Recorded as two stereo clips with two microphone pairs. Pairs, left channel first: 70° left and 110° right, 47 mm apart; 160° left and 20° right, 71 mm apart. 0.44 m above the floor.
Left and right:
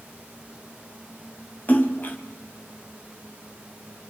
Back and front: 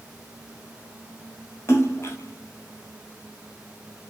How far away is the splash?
About 1.9 m.